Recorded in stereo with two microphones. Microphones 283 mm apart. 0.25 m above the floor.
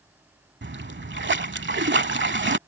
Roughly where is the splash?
Right.